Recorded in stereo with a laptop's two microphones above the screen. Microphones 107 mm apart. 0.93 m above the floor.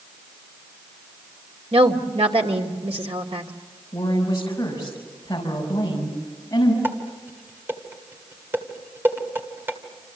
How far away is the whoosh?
No whoosh in this recording.